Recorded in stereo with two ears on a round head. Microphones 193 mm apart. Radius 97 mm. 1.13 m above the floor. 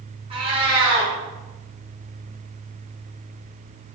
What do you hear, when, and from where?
0.3 s a cat meowing: 25° right (ahead or behind), 0.6 m